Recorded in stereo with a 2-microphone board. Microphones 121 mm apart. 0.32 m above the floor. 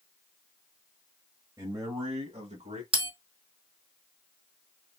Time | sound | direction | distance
1.6 | a man speaking | 30° right (ahead or behind) | 1.1 m
2.9 | a bell | 50° right (ahead or behind) | 3 m